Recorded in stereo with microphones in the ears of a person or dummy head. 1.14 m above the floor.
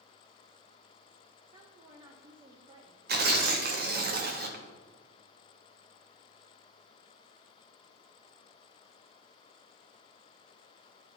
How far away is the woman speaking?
About 0.6 m.